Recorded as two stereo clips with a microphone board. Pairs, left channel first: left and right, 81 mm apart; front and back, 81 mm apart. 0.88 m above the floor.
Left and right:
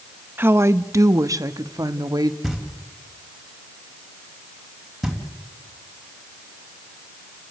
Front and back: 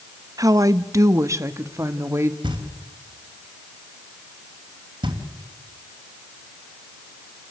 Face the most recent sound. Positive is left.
turn(degrees=180)